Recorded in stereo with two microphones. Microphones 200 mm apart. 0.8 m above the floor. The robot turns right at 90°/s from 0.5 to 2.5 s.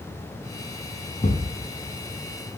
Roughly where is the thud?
Left.